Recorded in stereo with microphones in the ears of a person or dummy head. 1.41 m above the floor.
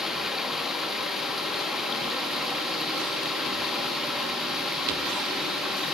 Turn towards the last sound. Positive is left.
turn(degrees=-5)  # may be behind; listen again after turning